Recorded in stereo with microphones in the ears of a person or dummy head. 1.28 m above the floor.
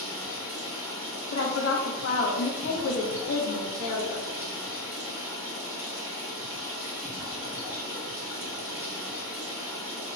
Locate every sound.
0.0 s running water: 10° right (ahead or behind), 1.0 m
1.3 s a woman speaking: 75° left (ahead or behind), 0.9 m